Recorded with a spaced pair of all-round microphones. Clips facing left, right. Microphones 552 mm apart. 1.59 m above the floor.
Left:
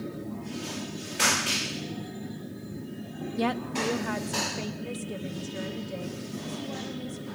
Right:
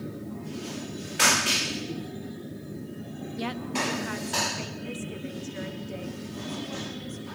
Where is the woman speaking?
70° left (ahead or behind), 0.5 m; by 7.2 s 55° left (ahead or behind), 2.5 m.